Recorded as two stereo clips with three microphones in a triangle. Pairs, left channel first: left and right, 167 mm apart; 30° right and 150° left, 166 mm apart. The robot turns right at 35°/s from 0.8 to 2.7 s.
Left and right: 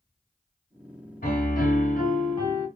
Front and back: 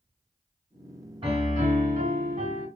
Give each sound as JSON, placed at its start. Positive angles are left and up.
{"t": 1.2, "sound": "a piano", "azimuth_deg": 100, "distance_m": 1.8}